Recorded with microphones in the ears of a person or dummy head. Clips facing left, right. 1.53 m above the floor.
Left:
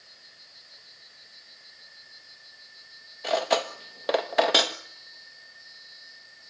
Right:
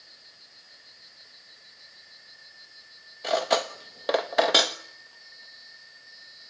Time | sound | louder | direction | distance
3.2 | cutlery clinking | even | centre (ahead or behind) | 1.2 m